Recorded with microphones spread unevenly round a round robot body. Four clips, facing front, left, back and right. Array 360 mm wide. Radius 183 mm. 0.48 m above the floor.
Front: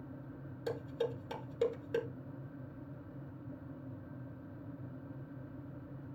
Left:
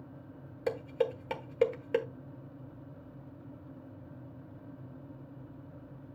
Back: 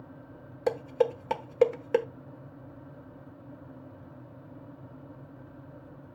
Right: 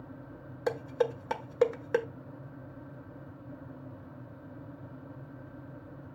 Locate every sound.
0.7 s dishes clattering: 170° right, 1.1 m